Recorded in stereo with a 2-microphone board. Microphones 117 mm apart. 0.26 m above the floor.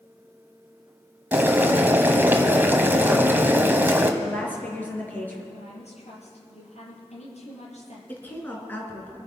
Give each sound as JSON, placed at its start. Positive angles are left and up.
{"t": 1.3, "sound": "boiling", "side_deg": -15, "distance_m": 1.4}
{"t": 4.2, "sound": "a woman speaking", "side_deg": 15, "distance_m": 4.5}
{"t": 5.5, "sound": "a woman speaking", "side_deg": 65, "distance_m": 6.5}
{"t": 8.1, "sound": "a woman speaking", "side_deg": 15, "distance_m": 3.5}